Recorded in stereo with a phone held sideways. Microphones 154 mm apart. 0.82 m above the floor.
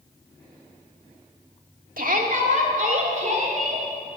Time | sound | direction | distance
2.0 | a shout | 60° right (ahead or behind) | 1.7 m